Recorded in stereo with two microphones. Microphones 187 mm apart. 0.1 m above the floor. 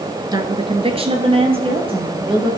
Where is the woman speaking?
20° right (ahead or behind), 1.2 m; by 2.5 s 30° right (ahead or behind), 3.5 m.